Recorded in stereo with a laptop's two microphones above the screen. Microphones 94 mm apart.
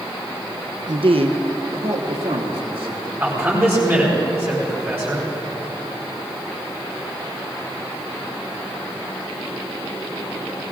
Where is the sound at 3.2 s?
25° right (ahead or behind), 4 m.